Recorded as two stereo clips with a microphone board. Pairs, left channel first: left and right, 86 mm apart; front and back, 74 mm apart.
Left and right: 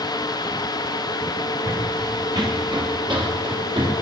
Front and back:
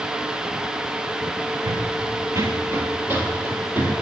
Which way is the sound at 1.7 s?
155° right.